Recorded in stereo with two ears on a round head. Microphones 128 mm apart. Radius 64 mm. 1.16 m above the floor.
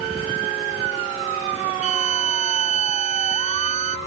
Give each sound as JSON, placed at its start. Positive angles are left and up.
{"t": 1.8, "sound": "a violin", "side_deg": -50}